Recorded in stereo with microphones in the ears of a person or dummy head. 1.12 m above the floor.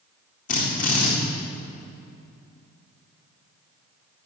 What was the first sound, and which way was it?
A drill, 40° left (ahead or behind).